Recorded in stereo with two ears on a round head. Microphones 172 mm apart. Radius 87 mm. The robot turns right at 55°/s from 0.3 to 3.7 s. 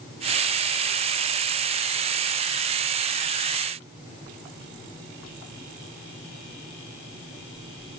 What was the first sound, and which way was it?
Only background noise.